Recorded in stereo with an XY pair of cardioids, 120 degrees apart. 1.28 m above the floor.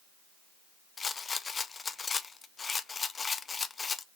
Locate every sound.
1.0 s a rattle: 30° left, 0.6 m